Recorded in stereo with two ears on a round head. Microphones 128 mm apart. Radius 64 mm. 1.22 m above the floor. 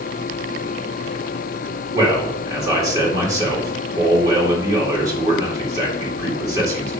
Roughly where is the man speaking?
Right.